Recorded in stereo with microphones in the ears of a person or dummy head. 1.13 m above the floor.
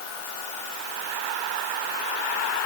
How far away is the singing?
I don't hear singing.